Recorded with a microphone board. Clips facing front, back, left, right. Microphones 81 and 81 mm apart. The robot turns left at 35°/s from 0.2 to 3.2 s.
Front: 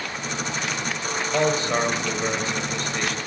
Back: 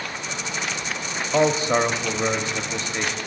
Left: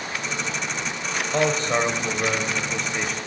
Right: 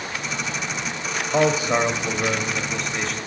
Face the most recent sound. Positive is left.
turn(degrees=155)